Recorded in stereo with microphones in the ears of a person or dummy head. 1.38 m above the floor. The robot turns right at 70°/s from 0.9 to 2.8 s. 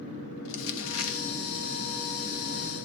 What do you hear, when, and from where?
0.5 s crumpling: 75° left (ahead or behind), 1.9 m; by 1.2 s 80° left, 1.9 m